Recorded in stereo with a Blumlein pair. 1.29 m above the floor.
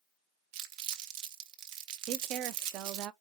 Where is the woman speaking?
35° right, 0.5 m.